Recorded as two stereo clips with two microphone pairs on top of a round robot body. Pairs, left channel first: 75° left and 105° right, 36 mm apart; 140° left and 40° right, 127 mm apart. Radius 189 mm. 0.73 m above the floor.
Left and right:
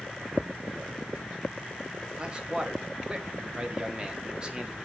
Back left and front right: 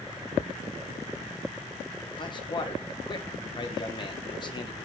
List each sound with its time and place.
2.2 s a man speaking: 165° right, 2 m